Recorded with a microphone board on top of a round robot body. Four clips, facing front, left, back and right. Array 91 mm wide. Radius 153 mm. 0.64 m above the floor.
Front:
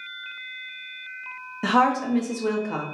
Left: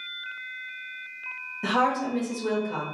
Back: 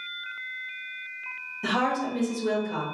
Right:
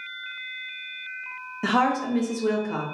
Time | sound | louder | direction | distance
1.6 | a woman speaking | right 2 dB, front 6 dB | 25° right | 1.4 m